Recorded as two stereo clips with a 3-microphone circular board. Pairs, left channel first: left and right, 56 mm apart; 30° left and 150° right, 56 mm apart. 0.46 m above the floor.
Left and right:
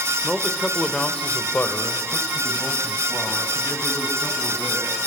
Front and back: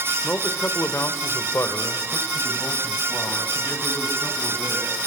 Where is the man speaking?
10° right, 2.0 m; by 5.0 s 75° left, 6 m.